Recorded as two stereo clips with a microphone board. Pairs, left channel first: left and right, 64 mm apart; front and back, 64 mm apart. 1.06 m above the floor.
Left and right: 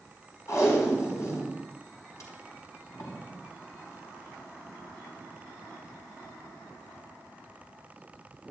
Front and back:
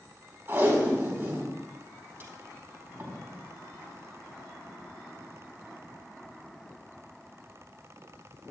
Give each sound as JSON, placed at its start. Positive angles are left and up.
{"t": 0.5, "sound": "tape being pulled", "azimuth_deg": 125, "distance_m": 4.5}